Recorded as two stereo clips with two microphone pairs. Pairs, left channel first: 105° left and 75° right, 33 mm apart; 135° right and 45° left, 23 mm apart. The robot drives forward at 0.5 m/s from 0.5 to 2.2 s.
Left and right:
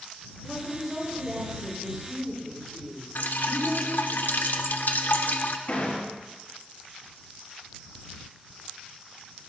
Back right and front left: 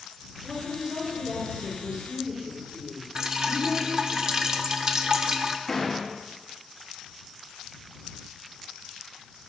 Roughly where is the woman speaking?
Ahead.